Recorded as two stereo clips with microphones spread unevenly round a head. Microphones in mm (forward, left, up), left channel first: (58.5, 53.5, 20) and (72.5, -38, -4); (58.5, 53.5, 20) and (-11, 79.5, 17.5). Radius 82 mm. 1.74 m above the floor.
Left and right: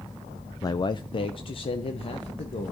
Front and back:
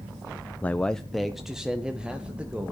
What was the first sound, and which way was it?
A man speaking, 45° left.